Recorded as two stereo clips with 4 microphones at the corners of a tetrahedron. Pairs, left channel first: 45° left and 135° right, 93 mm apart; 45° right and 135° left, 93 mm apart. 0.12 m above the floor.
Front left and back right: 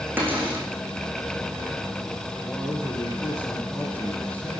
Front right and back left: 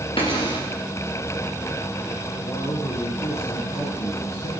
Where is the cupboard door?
65° right, 4.5 m.